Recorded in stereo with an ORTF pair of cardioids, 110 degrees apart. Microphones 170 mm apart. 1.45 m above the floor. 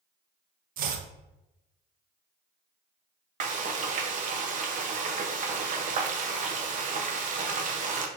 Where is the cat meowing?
I don't hear a cat meowing.